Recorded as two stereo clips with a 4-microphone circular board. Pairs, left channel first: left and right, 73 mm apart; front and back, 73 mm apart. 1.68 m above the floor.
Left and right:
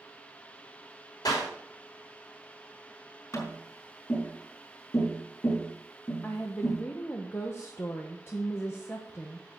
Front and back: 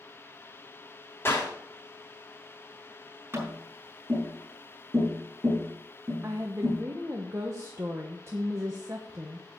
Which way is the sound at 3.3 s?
125° left.